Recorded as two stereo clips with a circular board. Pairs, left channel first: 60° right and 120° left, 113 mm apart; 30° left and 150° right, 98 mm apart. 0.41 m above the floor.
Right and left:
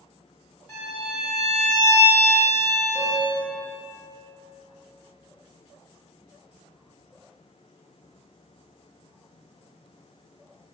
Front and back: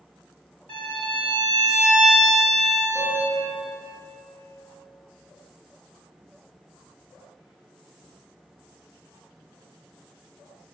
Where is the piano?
25° left, 1.1 m.